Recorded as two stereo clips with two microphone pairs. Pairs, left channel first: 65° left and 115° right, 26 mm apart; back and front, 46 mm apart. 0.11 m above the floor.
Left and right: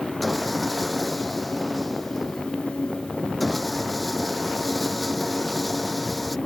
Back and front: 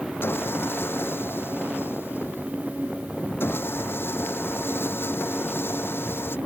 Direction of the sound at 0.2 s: 155° left.